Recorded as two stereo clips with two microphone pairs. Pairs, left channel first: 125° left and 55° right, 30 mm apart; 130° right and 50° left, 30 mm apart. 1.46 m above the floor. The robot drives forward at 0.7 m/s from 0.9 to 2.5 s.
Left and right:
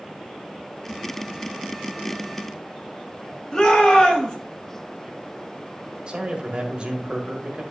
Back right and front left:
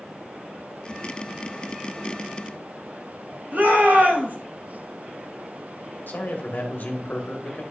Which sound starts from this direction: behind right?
A man speaking, at 6.1 s.